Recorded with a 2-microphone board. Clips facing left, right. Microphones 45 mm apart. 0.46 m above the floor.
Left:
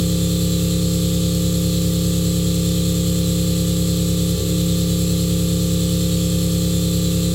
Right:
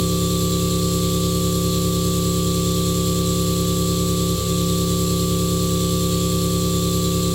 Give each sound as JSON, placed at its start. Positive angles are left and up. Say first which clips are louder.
{"t": 0.0, "sound": "an engine running", "louder": "even", "side_deg": 25, "distance_m": 1.7}